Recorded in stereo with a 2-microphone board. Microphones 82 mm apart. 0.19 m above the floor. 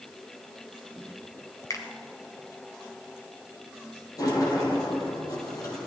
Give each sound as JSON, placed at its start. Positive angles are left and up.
{"t": 1.7, "sound": "a finger snap", "side_deg": 45, "distance_m": 1.7}
{"t": 4.2, "sound": "a sliding door", "side_deg": 45, "distance_m": 2.5}